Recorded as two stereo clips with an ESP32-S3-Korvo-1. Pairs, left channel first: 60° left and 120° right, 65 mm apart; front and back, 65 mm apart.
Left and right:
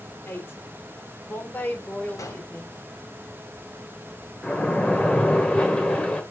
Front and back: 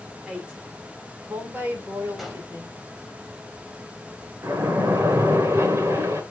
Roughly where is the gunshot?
Left.